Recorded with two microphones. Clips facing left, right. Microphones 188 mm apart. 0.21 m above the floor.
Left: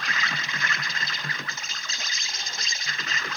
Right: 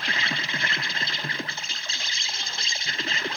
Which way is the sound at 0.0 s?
30° right (ahead or behind).